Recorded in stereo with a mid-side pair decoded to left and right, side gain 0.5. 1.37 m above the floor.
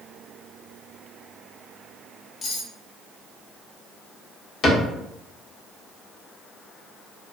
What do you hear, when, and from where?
2.4 s cutlery clinking: 55° left, 1.6 m
4.6 s a cupboard door: 50° left, 0.9 m